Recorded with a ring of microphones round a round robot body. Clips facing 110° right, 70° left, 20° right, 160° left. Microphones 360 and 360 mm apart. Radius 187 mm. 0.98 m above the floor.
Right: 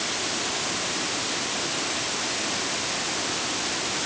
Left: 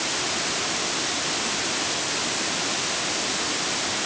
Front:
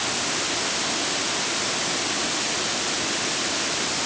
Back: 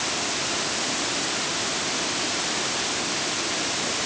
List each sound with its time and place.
Only background noise.